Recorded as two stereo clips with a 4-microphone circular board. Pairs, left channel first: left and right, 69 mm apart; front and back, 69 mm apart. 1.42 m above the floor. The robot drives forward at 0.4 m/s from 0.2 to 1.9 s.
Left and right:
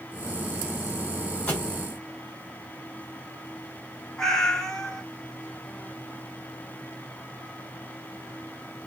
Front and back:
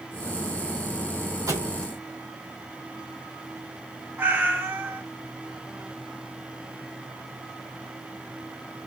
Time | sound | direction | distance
1.5 | a thud | 160° left | 2 m
4.2 | a cat meowing | 160° left | 0.9 m